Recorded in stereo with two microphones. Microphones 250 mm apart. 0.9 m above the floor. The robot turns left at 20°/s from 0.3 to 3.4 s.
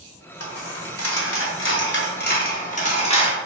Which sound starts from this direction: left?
A dropped coin, at 0.4 s.